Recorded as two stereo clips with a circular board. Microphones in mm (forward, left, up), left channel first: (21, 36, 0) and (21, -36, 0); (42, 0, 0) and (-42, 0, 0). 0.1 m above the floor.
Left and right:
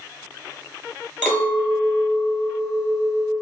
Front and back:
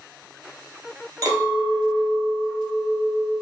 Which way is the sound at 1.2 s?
155° left.